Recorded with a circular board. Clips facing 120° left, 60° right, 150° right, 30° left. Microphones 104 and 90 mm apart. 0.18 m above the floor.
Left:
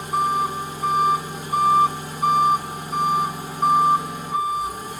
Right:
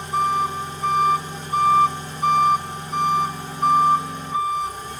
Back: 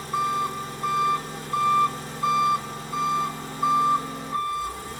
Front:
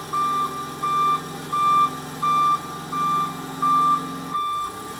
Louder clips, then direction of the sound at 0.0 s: Even, front 3 dB; 40° left.